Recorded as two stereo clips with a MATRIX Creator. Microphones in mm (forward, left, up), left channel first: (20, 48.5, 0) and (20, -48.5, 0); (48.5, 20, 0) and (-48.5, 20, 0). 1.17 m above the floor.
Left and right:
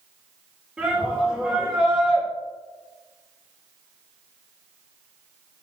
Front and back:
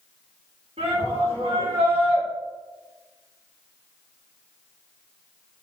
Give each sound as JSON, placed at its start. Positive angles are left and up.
{"t": 0.8, "sound": "a shout", "azimuth_deg": -170, "distance_m": 4.5}